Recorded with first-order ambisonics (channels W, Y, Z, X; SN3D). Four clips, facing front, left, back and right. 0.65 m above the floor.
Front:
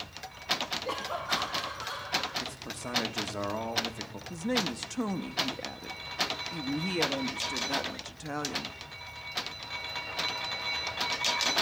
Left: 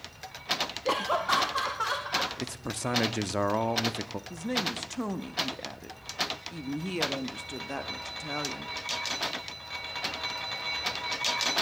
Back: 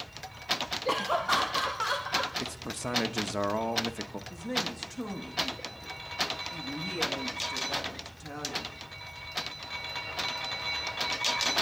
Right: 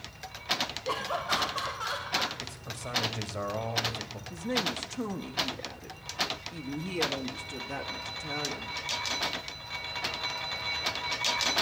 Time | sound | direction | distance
0.8 | laughter | 120° left | 0.8 m
2.4 | a man speaking | 110° left | 0.8 m
4.3 | a woman speaking | 40° left | 0.9 m